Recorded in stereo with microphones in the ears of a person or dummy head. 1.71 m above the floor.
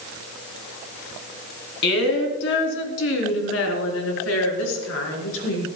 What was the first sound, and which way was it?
A woman speaking, 70° left (ahead or behind).